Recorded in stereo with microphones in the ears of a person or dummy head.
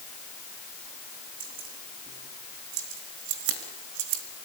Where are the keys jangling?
50° right (ahead or behind), 7 m; by 4.2 s 85° right, 4 m.